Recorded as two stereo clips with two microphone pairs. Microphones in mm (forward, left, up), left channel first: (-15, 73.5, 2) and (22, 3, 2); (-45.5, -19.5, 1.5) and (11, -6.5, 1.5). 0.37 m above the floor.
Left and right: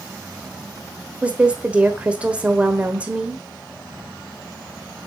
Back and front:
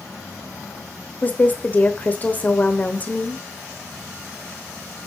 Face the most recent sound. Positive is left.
turn(degrees=-130)